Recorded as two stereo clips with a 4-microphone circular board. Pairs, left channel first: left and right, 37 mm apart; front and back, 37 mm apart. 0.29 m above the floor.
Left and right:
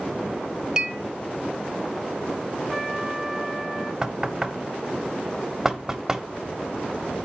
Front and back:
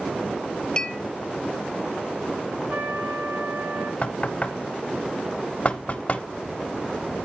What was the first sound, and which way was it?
A clink, 40° right.